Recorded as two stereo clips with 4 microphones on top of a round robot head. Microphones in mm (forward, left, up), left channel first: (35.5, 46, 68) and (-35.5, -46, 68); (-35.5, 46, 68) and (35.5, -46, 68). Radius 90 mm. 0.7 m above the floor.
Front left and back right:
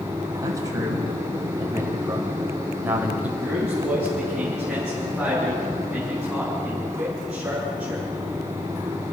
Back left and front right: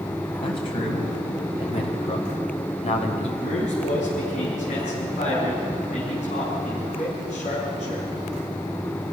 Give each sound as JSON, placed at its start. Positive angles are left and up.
{"t": 0.4, "sound": "a man speaking", "azimuth_deg": 170, "distance_m": 5.0}
{"t": 3.4, "sound": "a man speaking", "azimuth_deg": 150, "distance_m": 5.5}